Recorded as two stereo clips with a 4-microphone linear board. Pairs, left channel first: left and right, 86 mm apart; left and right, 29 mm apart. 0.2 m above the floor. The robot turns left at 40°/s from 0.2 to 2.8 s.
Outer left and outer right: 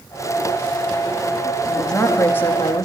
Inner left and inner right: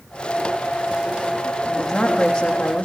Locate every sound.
1.6 s a woman speaking: 175° right, 7.5 m; by 2.9 s 140° left, 7.5 m